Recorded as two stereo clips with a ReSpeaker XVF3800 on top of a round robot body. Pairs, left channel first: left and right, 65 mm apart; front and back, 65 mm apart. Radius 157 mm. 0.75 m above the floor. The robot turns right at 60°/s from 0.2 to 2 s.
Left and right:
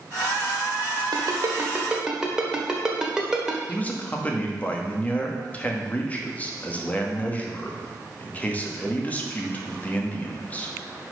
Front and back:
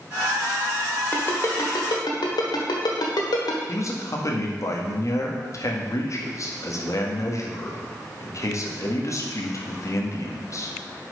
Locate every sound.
1.1 s a ringtone: 65° right, 1.4 m; by 3.6 s 10° right, 1.4 m
3.7 s a man speaking: 25° left, 1.8 m